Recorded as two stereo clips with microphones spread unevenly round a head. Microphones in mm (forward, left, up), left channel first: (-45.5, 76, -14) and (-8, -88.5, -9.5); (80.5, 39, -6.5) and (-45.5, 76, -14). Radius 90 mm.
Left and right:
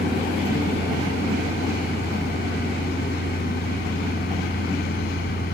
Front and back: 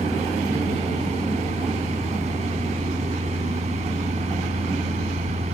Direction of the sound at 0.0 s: 130° left.